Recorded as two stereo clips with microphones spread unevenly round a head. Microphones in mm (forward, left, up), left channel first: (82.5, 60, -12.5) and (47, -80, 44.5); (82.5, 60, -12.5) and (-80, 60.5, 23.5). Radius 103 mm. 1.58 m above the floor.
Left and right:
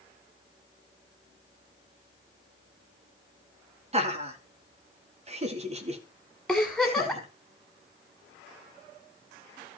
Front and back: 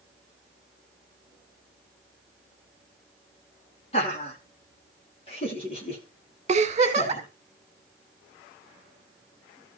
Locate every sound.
3.9 s laughter: 65° right, 2.5 m
6.5 s a giggle: 175° right, 1.7 m